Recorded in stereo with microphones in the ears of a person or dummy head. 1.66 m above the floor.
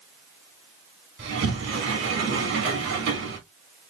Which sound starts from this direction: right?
A sliding door, at 1.2 s.